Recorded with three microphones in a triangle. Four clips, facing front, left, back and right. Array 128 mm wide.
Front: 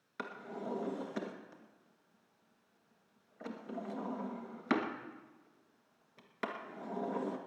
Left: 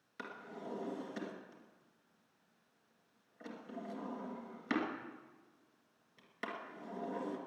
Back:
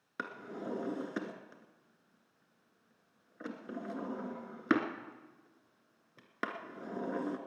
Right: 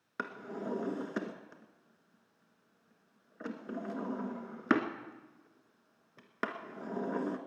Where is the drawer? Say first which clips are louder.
Right 7 dB, back 1 dB; 120° right, 1.3 m.